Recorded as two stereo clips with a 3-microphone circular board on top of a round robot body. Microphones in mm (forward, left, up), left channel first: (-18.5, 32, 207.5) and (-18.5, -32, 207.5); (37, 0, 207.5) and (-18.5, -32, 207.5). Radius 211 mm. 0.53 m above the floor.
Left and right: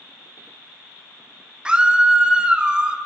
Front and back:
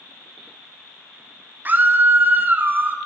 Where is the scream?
150° right, 0.7 m.